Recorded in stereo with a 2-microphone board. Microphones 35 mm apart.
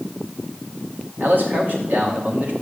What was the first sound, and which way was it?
A man speaking, 60° right (ahead or behind).